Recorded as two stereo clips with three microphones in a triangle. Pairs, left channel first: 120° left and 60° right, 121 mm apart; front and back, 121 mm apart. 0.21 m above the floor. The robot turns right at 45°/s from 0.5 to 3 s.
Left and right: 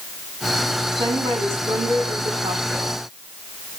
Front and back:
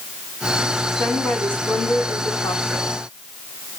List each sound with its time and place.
0.9 s a woman speaking: 100° right, 1.7 m; by 2.9 s 10° right, 1.7 m